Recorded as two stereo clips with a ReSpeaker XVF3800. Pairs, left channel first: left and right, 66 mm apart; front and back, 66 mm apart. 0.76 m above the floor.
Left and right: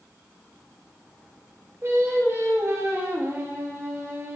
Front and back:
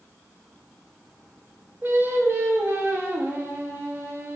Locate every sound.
1.8 s singing: 135° right, 0.5 m